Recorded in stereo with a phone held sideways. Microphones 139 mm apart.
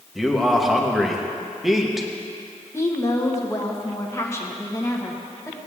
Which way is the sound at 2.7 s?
20° left (ahead or behind).